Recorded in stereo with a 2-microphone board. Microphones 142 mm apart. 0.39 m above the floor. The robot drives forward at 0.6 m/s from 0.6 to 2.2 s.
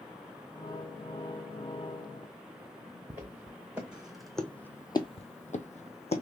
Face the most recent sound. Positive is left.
turn(degrees=45)  # may be behind; listen again after turning